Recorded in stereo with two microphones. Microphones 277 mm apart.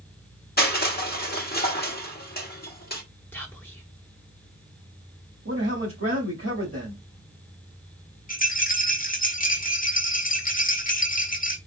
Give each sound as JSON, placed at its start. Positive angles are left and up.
{"t": 0.6, "sound": "crushing", "side_deg": 35, "distance_m": 1.0}
{"t": 3.3, "sound": "whispering", "side_deg": 10, "distance_m": 0.8}
{"t": 5.5, "sound": "a man speaking", "side_deg": -50, "distance_m": 2.0}
{"t": 8.3, "sound": "a rattle", "side_deg": 30, "distance_m": 1.1}